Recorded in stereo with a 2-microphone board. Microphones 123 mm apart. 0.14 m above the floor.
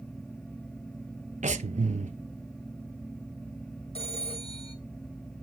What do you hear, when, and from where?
1.4 s breathing: 70° right (ahead or behind), 0.8 m
4.0 s a phone ringing: 50° left (ahead or behind), 3 m